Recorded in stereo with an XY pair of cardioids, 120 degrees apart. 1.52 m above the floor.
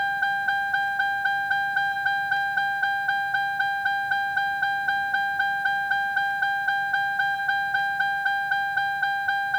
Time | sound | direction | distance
0.0 | a vehicle | 5° left | ?